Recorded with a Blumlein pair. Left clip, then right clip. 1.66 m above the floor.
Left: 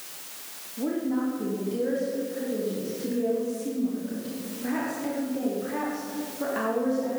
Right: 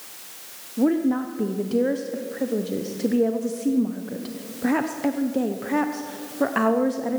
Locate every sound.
0.8 s a woman speaking: 30° right, 1.0 m